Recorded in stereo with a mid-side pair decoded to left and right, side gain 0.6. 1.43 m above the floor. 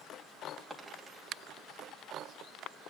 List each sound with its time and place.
0.7 s a dropped coin: 5° right, 3.5 m